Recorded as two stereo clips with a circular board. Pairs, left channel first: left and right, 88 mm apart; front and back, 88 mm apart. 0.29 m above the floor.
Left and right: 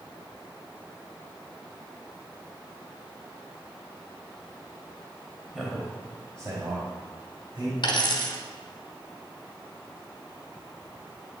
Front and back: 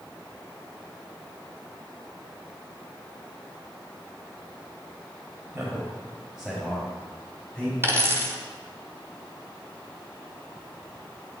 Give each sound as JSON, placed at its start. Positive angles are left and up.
{"t": 5.5, "sound": "a man speaking", "azimuth_deg": -175, "distance_m": 1.0}
{"t": 7.8, "sound": "a dropped coin", "azimuth_deg": 120, "distance_m": 1.3}